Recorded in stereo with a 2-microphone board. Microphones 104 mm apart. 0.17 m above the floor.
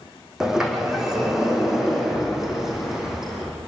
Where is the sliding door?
5° right (ahead or behind), 3 m.